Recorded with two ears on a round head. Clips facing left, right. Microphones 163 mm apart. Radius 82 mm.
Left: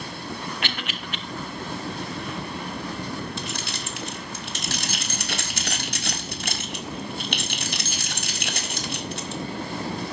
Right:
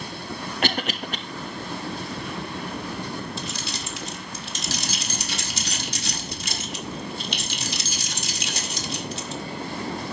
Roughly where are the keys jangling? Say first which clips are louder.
Even; left.